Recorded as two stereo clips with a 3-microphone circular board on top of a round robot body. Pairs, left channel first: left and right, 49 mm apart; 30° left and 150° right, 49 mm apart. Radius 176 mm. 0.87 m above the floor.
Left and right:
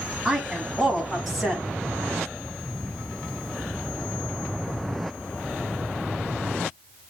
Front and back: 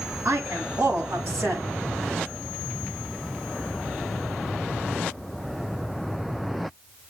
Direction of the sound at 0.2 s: 175° right.